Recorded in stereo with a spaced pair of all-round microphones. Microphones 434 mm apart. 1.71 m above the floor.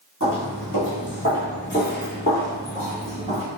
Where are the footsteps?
30° left (ahead or behind), 1.9 m; by 3.4 s 15° left (ahead or behind), 2.5 m.